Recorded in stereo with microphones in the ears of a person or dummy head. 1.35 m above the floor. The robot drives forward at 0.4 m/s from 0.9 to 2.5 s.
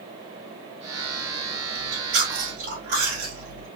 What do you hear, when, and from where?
1.8 s chewing: 60° right (ahead or behind), 1.4 m; by 3.7 s 50° right (ahead or behind), 1.5 m